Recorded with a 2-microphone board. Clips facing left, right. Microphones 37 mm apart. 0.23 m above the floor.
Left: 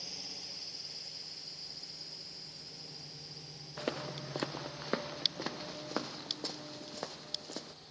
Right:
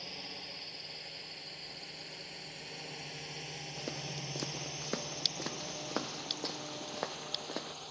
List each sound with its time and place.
0.0 s a drone: 30° right (ahead or behind); by 7.9 s 75° right (ahead or behind)
3.8 s footsteps: 45° left (ahead or behind); by 7.7 s 25° right (ahead or behind)